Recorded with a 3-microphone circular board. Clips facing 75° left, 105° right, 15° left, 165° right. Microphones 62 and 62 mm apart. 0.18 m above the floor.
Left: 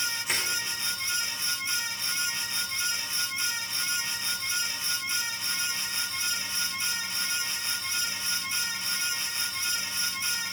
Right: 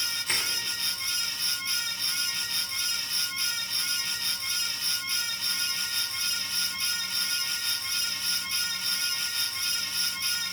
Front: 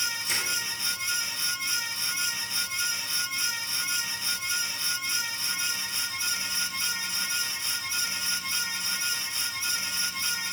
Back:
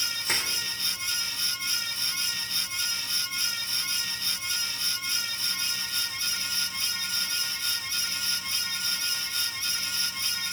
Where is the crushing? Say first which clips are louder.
Right 1 dB, back 4 dB; 155° left, 3 m.